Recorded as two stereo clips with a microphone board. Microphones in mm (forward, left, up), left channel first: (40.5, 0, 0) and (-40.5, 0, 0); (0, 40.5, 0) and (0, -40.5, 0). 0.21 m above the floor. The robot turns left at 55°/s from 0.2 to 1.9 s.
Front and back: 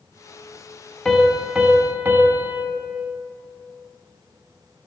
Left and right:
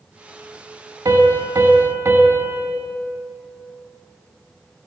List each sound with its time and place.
1.1 s a piano: 80° right, 0.5 m; by 2.6 s 130° right, 0.5 m